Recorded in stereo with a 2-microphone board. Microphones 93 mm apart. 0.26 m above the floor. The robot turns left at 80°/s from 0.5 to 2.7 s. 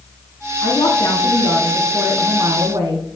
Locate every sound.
0.6 s a woman speaking: 90° left, 3.5 m; by 3.2 s 75° right, 3.5 m